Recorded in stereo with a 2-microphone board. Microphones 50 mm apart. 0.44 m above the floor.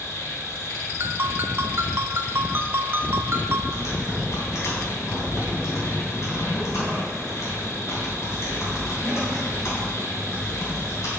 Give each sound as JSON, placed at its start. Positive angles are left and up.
{"t": 0.0, "sound": "an insect", "side_deg": 70, "distance_m": 1.3}
{"t": 1.0, "sound": "a ringtone", "side_deg": -50, "distance_m": 0.7}
{"t": 3.7, "sound": "typing on a keyboard", "side_deg": 75, "distance_m": 3.0}